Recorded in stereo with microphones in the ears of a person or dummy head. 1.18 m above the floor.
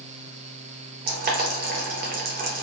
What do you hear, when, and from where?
1.1 s boiling: 45° right (ahead or behind), 0.6 m